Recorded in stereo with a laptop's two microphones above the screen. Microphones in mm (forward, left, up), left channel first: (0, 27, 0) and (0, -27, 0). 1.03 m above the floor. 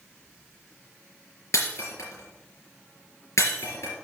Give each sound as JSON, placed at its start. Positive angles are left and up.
{"t": 1.5, "sound": "breaking glass", "side_deg": 80, "distance_m": 4.0}